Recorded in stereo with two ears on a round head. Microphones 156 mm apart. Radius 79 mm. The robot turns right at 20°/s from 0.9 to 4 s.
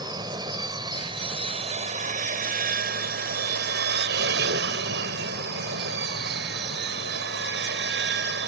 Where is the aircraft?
155° right; by 8.5 s 90° right.